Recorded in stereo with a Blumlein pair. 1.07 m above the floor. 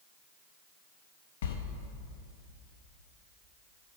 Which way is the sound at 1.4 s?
60° left.